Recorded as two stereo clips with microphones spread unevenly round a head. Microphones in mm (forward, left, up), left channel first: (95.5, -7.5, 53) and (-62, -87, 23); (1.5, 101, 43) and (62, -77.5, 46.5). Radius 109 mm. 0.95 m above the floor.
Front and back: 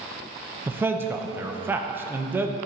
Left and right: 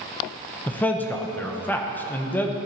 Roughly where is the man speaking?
Behind.